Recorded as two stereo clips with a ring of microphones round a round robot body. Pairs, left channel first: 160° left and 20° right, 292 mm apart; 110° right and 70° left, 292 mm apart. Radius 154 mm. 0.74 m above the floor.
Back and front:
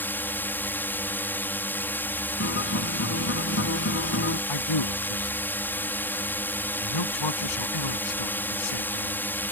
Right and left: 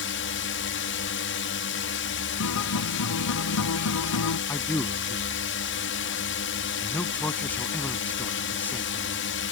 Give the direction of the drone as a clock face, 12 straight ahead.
4 o'clock.